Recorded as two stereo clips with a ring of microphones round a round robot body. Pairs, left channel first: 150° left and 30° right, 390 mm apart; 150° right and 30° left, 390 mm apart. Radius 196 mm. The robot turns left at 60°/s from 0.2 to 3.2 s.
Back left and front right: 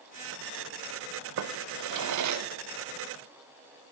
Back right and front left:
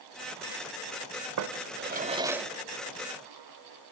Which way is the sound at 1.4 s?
5° left.